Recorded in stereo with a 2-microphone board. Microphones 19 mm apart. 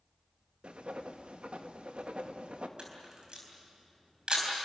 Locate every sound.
0.6 s writing: 75° right (ahead or behind), 1.5 m
2.8 s a camera shutter: 60° right (ahead or behind), 6 m